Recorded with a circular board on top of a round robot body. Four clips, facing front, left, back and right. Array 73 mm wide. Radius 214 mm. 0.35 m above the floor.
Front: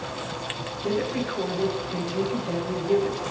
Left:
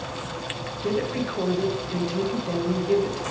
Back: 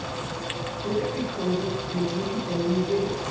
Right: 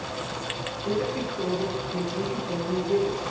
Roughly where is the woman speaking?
Ahead left.